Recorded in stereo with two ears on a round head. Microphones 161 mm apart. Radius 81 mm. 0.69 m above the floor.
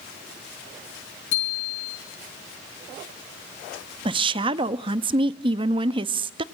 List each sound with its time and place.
1.3 s a bicycle bell: 80° left, 7.5 m
4.0 s a woman speaking: 30° right (ahead or behind), 0.6 m